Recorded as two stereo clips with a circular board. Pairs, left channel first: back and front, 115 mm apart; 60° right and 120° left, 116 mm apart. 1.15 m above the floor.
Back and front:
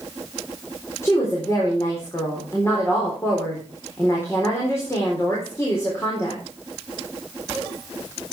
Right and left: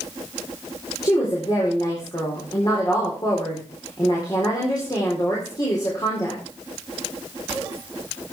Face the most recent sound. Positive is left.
turn(degrees=-115)